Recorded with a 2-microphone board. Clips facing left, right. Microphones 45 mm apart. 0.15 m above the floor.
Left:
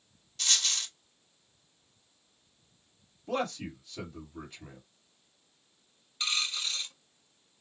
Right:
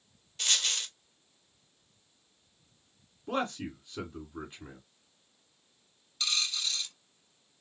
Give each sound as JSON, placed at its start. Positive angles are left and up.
{"t": 0.4, "sound": "a dropped coin", "side_deg": -30, "distance_m": 1.1}
{"t": 3.3, "sound": "a man speaking", "side_deg": -30, "distance_m": 1.7}
{"t": 6.2, "sound": "a dropped coin", "side_deg": 25, "distance_m": 0.6}